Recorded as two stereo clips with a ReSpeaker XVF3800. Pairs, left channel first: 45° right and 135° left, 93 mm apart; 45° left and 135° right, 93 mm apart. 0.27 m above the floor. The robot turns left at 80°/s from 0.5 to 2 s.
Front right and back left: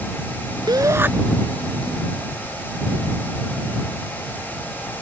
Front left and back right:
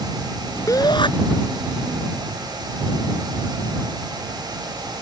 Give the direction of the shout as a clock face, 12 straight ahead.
9 o'clock.